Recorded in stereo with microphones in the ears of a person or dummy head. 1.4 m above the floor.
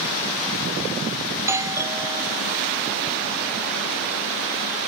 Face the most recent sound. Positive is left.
turn(degrees=-10)  # may be behind; listen again after turning